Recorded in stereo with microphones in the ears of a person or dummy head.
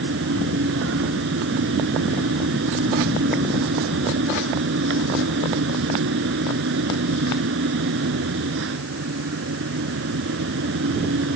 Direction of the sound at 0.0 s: 75° right (ahead or behind).